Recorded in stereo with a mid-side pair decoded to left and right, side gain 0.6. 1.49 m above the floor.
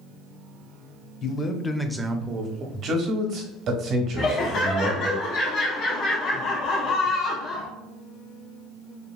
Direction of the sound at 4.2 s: 55° left.